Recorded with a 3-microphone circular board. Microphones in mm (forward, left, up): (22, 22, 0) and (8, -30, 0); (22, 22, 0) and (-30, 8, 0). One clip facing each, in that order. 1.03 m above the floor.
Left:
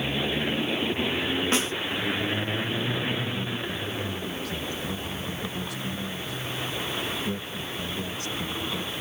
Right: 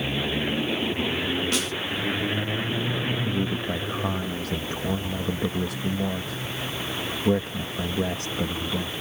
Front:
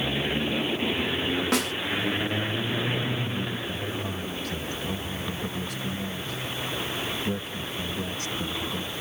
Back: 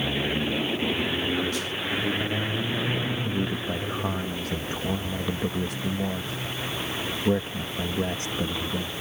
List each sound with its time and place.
1.5 s a snare drum: 15° left
3.2 s a man speaking: 115° right